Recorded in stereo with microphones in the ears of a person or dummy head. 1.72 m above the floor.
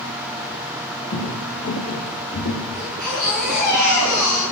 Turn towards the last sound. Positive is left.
turn(degrees=0)  # may be behind; listen again after turning